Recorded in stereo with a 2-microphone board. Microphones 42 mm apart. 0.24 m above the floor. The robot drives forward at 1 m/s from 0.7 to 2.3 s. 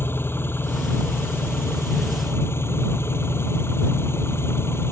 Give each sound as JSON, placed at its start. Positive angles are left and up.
{"t": 0.0, "sound": "an engine running", "side_deg": 70}